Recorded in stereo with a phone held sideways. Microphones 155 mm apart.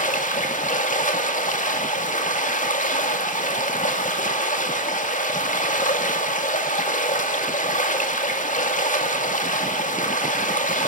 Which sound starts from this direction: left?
Running water, at 0.0 s.